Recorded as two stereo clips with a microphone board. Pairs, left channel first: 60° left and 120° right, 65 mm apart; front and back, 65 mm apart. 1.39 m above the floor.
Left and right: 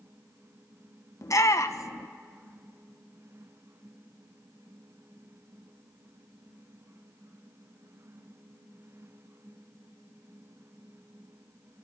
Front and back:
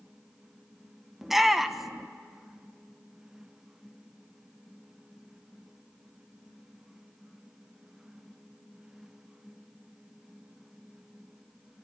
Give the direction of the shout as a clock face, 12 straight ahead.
9 o'clock.